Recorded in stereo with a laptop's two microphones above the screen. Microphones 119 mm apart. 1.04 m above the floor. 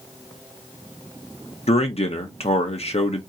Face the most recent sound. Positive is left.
turn(degrees=60)  # may be behind; listen again after turning